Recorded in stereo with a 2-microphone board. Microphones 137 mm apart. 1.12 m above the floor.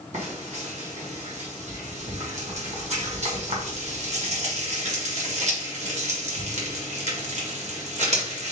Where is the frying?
55° right (ahead or behind), 1.4 m.